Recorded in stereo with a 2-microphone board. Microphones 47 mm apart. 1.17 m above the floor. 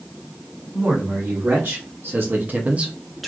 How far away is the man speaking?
About 1.9 m.